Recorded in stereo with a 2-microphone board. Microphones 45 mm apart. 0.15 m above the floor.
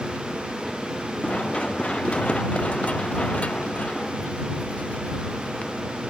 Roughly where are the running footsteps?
Left.